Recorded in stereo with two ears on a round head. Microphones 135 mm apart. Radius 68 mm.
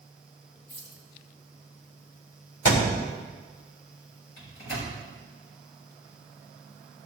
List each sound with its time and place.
0.7 s keys jangling: 80° left, 6 m
2.6 s a thud: 80° left, 4 m
4.4 s a microwave: 80° left, 6.5 m